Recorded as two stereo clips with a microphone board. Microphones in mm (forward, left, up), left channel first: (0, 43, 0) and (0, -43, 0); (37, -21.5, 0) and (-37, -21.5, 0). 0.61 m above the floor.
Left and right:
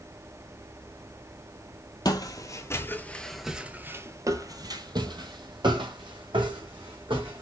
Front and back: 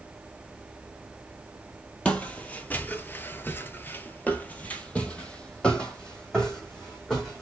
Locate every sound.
2.0 s footsteps: 70° left, 1.0 m; by 7.4 s 80° right, 2.5 m